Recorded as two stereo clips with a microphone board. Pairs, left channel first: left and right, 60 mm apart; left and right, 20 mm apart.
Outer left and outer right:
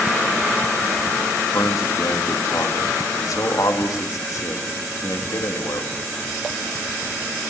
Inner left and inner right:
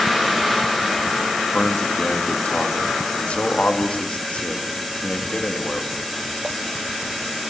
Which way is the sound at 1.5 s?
70° left (ahead or behind).